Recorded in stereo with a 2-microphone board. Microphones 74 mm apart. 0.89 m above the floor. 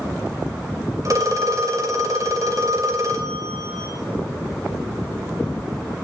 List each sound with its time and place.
1.1 s a phone ringing: 45° right (ahead or behind), 2.5 m